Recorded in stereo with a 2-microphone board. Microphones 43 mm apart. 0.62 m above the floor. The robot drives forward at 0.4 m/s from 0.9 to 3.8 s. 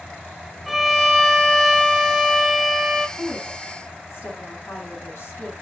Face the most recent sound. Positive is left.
turn(degrees=75)  # may be behind; listen again after turning